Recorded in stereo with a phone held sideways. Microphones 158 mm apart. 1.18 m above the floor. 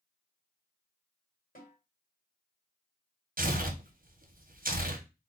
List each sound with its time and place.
1.6 s a snare drum: 55° left (ahead or behind), 1.5 m
3.4 s tearing paper: 65° right (ahead or behind), 0.6 m